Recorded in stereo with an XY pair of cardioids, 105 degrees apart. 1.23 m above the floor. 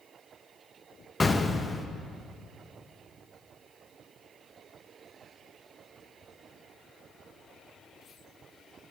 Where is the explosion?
20° left, 0.8 m.